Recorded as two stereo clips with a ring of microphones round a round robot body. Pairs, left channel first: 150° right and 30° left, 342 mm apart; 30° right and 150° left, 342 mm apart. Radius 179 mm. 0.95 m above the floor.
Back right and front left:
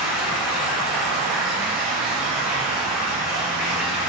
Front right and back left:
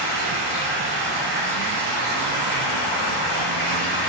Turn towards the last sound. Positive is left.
turn(degrees=120)